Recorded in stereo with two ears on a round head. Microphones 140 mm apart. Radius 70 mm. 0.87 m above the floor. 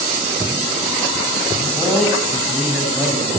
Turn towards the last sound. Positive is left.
turn(degrees=-5)  # may be behind; listen again after turning